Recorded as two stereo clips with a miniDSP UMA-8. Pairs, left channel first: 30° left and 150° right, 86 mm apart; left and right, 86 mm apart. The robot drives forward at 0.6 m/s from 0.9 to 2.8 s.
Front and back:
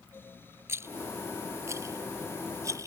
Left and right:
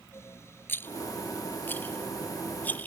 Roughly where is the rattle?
Behind left.